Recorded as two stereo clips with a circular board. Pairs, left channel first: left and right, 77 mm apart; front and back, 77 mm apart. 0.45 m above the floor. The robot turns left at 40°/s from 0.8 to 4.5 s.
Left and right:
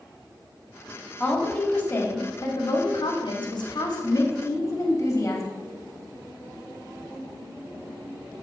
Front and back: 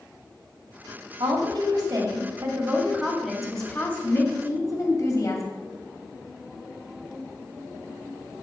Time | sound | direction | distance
1.2 | a woman speaking | straight behind | 1.9 m